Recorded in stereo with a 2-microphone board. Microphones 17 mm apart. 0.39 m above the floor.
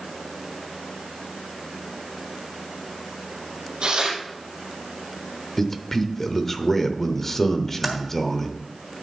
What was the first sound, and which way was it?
Tearing paper, 65° right (ahead or behind).